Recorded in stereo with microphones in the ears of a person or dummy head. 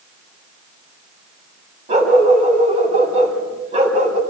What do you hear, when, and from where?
1.9 s a dog barking: 40° right (ahead or behind), 4 m